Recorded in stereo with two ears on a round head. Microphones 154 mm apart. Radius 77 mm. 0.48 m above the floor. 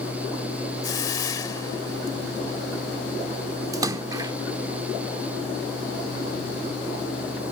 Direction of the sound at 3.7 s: 20° right (ahead or behind).